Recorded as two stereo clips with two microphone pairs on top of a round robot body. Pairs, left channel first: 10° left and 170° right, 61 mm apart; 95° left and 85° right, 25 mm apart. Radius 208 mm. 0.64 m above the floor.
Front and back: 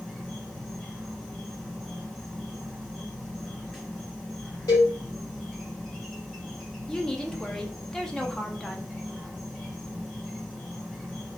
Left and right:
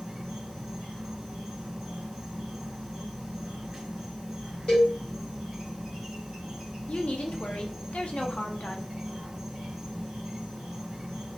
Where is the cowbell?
35° left, 0.6 m.